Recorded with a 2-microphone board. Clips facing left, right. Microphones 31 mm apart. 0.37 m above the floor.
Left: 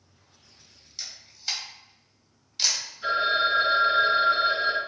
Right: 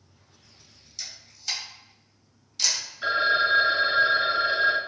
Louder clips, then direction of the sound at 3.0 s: Right 1 dB; 45° right (ahead or behind).